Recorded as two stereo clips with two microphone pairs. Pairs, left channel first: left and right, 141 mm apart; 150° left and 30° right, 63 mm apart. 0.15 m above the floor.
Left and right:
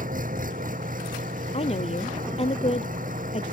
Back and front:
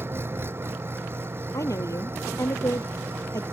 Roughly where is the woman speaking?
Behind left.